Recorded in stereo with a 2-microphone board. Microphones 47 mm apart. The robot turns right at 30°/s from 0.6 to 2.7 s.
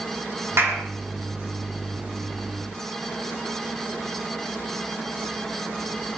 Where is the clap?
60° right (ahead or behind), 5 m; by 0.8 s 65° right (ahead or behind), 5 m.